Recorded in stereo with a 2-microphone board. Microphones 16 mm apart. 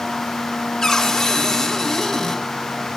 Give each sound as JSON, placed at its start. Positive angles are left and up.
{"t": 0.8, "sound": "a cupboard door", "side_deg": 20, "distance_m": 1.5}